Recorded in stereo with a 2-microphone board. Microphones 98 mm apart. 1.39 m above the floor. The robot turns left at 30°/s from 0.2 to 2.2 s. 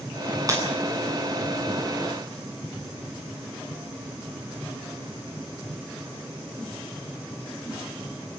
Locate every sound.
0.5 s breaking glass: 35° right (ahead or behind), 9.5 m